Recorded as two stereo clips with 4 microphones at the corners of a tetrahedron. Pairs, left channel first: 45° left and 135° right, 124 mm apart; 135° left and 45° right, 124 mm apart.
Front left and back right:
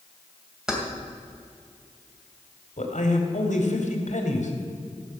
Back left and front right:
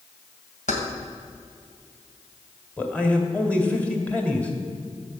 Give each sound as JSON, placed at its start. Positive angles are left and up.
{"t": 0.7, "sound": "keys jangling", "azimuth_deg": 140, "distance_m": 2.5}
{"t": 2.8, "sound": "a man speaking", "azimuth_deg": 55, "distance_m": 2.0}